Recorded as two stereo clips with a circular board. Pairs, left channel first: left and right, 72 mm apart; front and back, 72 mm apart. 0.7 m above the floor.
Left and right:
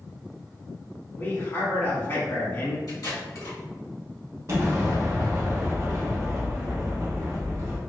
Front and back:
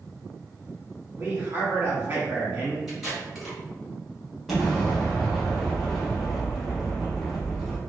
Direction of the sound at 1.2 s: 125° left.